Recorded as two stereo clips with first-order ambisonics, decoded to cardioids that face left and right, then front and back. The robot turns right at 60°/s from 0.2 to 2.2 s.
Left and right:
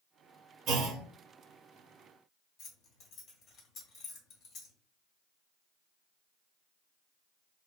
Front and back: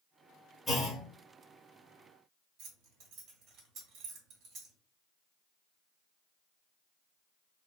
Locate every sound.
0.7 s a clunk: 75° right, 0.9 m; by 1.0 s 50° right, 0.9 m
2.6 s keys jangling: 135° left, 1.4 m